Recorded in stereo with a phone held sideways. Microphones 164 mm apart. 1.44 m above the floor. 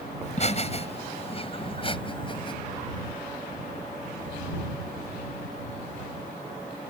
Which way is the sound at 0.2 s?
45° left (ahead or behind).